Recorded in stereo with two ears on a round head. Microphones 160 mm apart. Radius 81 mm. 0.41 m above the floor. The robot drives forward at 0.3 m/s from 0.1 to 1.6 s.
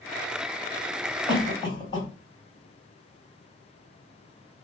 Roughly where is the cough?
Left.